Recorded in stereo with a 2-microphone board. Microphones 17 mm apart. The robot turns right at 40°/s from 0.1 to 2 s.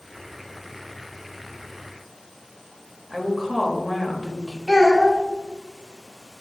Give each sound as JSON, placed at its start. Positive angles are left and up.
{"t": 3.1, "sound": "a woman speaking", "side_deg": -5, "distance_m": 1.0}
{"t": 4.7, "sound": "a child speaking", "side_deg": 15, "distance_m": 0.9}